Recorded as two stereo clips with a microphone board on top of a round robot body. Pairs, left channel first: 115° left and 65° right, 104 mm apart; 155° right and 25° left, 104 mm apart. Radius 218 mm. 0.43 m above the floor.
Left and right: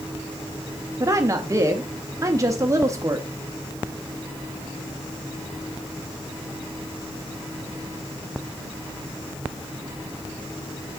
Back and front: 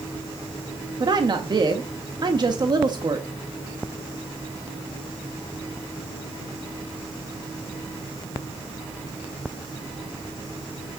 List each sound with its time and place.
1.0 s a woman speaking: 15° right, 1.2 m